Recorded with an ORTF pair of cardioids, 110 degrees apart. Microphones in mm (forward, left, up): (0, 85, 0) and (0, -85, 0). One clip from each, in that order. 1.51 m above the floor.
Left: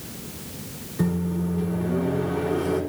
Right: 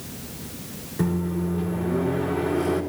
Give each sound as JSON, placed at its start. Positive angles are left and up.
{"t": 1.0, "sound": "a microwave", "azimuth_deg": -10, "distance_m": 4.0}